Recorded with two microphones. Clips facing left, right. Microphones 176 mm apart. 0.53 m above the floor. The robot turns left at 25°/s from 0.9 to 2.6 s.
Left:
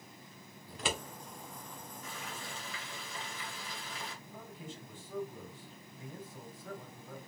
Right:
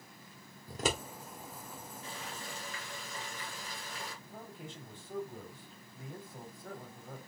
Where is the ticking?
No ticking in this recording.